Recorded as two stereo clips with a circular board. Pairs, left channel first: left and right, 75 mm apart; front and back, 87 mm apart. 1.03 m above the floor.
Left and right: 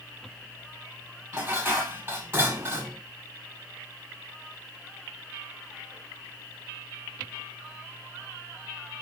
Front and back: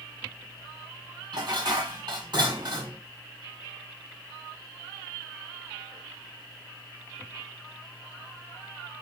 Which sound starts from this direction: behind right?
Dishes clattering, at 1.3 s.